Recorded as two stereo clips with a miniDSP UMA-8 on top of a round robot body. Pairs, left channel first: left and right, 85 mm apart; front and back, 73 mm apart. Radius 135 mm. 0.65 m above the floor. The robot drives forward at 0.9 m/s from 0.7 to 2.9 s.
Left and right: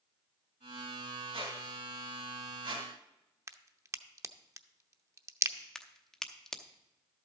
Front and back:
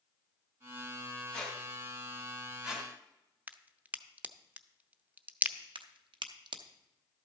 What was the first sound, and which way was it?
A squeak, 80° right.